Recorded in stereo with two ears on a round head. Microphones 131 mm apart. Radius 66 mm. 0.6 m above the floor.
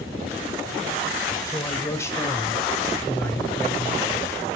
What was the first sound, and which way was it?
A man speaking, 20° left (ahead or behind).